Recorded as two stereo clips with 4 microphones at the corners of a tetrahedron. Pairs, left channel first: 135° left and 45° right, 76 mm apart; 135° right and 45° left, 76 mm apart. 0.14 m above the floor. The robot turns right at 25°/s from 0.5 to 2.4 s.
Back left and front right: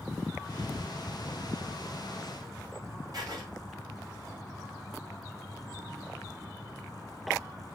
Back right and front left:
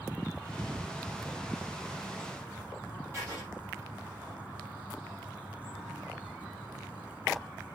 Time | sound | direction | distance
3.1 | writing | 10° right | 4.5 m